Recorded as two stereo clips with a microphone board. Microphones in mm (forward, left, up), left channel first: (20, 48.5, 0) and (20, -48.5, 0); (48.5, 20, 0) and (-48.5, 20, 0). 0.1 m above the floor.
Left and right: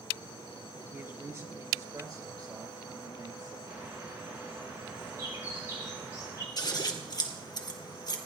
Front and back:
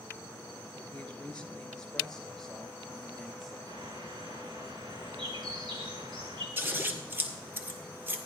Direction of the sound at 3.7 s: 150° right.